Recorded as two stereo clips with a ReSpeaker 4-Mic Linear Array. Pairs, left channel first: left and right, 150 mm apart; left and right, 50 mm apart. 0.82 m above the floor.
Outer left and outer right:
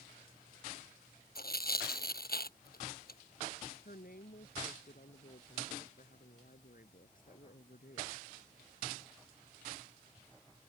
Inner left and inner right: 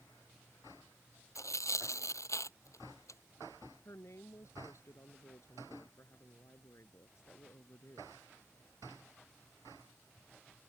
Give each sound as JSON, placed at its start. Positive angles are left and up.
{"t": 1.4, "sound": "tearing paper", "side_deg": 85}
{"t": 3.9, "sound": "a woman speaking", "side_deg": 70}